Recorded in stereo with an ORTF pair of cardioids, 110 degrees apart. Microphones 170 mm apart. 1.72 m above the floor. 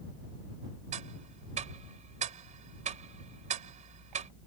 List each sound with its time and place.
0.9 s ticking: 45° right